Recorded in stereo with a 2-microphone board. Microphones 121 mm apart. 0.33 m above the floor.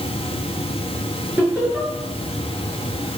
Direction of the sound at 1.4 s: 15° right (ahead or behind).